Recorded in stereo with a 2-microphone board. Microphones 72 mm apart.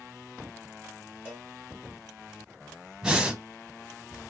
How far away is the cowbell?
About 3 m.